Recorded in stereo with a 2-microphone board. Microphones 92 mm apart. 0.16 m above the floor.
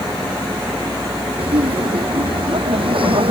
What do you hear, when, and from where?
1.4 s laughter: 65° right (ahead or behind)